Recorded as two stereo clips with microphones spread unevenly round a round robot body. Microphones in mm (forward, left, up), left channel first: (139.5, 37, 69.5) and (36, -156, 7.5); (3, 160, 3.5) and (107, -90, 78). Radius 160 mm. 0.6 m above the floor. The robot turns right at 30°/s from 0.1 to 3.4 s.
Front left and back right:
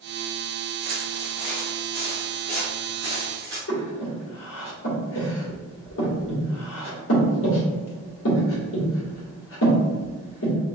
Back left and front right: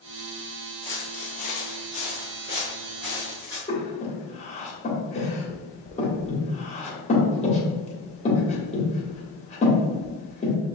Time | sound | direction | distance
0.8 | footsteps | 125° right | 0.6 m
3.7 | breathing | 80° left | 1.4 m